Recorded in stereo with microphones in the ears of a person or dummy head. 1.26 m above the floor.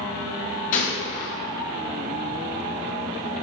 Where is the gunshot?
45° left (ahead or behind), 1.0 m.